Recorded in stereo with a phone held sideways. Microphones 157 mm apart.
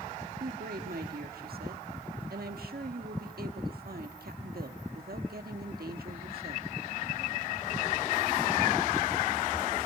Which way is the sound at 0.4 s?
80° right.